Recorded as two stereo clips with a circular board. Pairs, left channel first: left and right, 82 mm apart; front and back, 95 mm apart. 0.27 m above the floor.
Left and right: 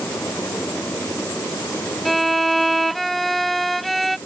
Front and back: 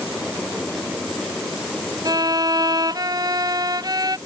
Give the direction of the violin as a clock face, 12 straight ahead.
6 o'clock.